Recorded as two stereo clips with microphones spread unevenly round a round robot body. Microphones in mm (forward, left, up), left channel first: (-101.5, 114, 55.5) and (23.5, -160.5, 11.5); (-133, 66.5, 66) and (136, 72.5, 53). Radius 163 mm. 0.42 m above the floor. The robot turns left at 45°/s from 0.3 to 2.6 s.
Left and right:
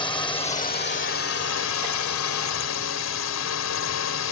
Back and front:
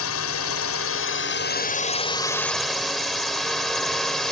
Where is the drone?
170° right; by 4.3 s 90° left.